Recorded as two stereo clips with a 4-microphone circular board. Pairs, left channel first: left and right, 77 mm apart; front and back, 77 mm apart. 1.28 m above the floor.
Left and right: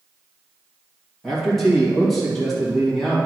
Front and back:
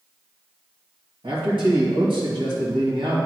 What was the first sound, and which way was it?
A man speaking, 175° left.